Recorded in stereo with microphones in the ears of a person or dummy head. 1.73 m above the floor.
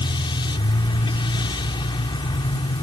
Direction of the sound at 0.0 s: 25° left (ahead or behind).